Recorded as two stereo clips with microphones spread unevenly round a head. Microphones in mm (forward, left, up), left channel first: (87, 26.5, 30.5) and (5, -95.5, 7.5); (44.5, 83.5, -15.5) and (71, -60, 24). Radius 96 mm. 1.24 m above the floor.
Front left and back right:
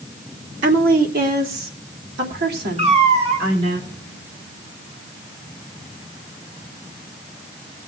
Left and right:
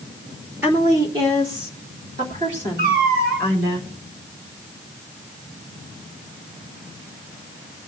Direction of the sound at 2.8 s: 75° right.